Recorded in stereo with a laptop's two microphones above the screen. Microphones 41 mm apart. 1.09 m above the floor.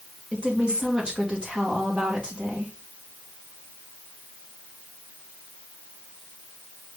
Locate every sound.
0.3 s a woman speaking: 25° right (ahead or behind), 1.4 m